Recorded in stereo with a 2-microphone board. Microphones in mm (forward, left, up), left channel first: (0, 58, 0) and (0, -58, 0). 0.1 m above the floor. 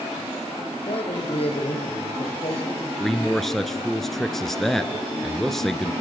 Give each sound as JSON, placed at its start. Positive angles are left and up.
{"t": 0.9, "sound": "a man speaking", "side_deg": 55, "distance_m": 4.5}
{"t": 3.0, "sound": "a man speaking", "side_deg": 5, "distance_m": 1.4}